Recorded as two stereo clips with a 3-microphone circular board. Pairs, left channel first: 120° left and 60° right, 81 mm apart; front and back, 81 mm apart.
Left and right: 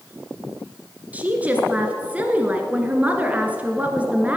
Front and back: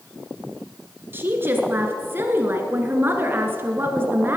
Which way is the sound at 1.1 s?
125° right.